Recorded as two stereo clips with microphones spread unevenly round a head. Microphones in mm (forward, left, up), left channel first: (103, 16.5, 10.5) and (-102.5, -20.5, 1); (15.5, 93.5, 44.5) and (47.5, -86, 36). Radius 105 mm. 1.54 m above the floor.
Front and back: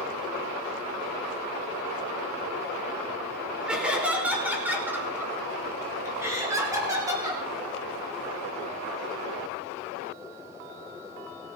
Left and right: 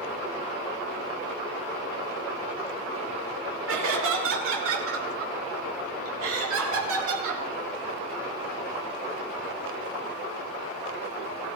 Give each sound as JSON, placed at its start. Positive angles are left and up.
{"t": 3.7, "sound": "laughter", "azimuth_deg": -85, "distance_m": 5.5}